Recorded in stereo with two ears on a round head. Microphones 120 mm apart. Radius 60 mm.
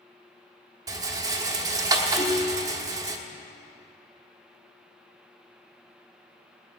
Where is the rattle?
25° right (ahead or behind), 1.2 m.